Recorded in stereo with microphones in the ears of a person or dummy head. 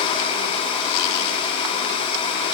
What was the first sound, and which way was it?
Only background noise.